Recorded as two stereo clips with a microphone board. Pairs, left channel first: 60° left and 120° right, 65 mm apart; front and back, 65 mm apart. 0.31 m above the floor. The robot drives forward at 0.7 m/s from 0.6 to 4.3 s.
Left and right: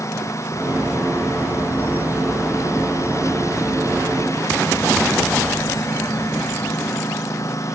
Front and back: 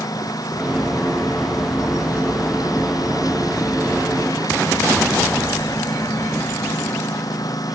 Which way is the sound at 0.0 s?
20° left.